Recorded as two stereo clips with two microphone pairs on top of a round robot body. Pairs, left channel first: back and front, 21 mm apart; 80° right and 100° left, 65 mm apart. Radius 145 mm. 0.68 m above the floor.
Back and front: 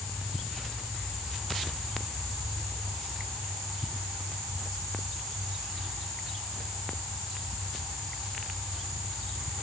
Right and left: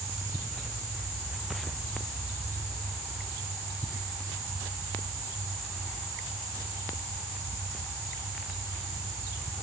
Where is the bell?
I don't hear a bell.